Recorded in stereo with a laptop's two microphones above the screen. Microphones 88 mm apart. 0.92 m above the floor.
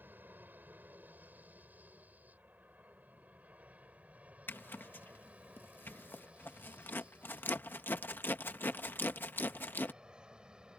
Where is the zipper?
25° left (ahead or behind).